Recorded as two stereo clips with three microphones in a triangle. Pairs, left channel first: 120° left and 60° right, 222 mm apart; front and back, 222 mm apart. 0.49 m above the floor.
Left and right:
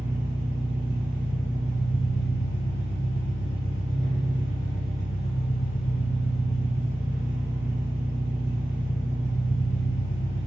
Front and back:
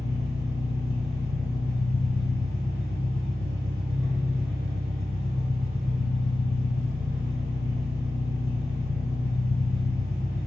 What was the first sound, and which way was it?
An engine running, 95° right.